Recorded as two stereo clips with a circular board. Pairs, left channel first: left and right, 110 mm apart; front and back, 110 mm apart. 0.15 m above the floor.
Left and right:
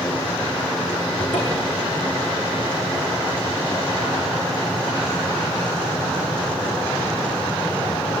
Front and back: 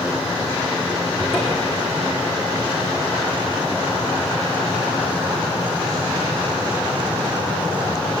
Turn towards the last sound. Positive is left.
turn(degrees=50)